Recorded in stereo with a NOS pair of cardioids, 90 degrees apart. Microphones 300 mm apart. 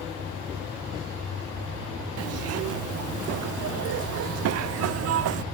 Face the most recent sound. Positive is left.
turn(degrees=-55)